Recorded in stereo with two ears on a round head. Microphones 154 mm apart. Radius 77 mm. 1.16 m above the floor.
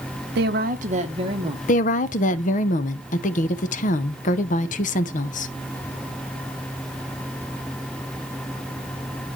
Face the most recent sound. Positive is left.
turn(degrees=45)  # may be behind; listen again after turning